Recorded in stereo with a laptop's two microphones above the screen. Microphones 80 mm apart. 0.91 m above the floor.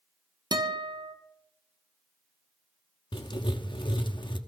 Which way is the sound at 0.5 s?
65° right (ahead or behind).